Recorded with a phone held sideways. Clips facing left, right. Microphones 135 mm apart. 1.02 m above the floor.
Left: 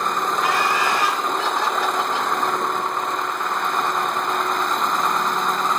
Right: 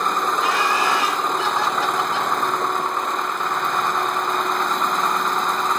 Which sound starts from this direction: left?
Laughter, at 0.4 s.